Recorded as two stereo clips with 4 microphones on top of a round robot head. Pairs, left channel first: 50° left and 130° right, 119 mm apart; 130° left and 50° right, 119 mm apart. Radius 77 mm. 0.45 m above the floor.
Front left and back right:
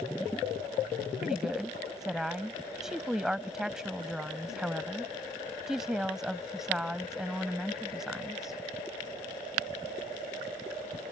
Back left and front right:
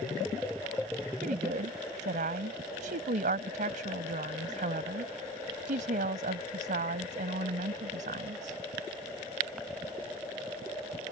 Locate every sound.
1.2 s a woman speaking: 45° right